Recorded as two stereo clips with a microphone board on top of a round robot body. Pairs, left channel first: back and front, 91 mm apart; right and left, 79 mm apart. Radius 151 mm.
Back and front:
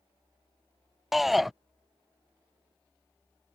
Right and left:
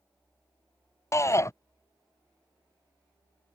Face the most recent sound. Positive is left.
turn(degrees=-90)